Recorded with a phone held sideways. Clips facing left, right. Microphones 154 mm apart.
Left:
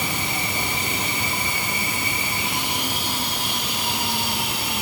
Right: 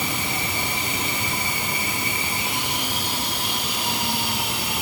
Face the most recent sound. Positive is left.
No sound to turn to.